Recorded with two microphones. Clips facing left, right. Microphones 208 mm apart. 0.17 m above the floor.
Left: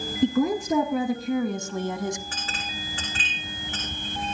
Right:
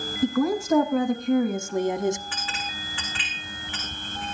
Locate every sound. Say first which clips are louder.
0.2 s a woman speaking: left 1 dB; 25° left (ahead or behind), 1.8 m; by 2.2 s 25° right (ahead or behind), 1.3 m
2.3 s a clink: even; 45° left (ahead or behind), 8 m